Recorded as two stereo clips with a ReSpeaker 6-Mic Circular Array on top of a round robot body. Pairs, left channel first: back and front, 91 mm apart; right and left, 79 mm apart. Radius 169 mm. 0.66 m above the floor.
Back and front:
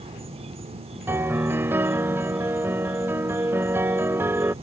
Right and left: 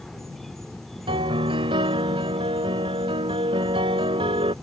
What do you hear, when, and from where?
0.0 s an insect: 5° right
1.1 s a piano: 70° left